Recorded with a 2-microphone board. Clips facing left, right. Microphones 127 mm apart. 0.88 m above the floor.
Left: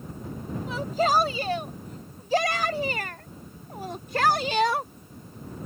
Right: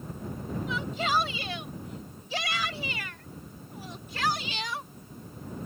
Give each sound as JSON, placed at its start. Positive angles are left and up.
{"t": 0.7, "sound": "a shout", "side_deg": 45}